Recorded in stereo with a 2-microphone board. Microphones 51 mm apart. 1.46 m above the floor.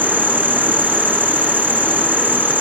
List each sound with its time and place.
0.0 s an insect: 40° right (ahead or behind)